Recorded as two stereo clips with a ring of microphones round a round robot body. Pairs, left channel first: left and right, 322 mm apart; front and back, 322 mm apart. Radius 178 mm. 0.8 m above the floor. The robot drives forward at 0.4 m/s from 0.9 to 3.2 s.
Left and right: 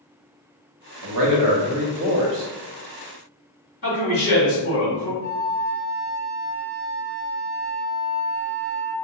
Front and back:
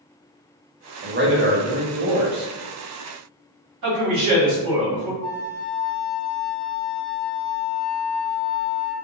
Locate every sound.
1.0 s a man speaking: 120° right, 0.8 m; by 2.5 s 145° right, 1.1 m
3.8 s a man speaking: 150° left, 1.5 m
5.2 s a flute: 75° right, 0.8 m